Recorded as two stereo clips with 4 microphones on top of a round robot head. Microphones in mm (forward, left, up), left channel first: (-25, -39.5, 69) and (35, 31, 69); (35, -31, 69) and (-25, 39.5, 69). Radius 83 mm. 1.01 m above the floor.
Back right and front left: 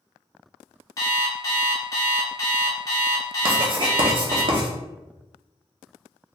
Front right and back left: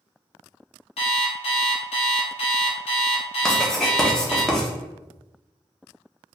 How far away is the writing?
About 1.1 m.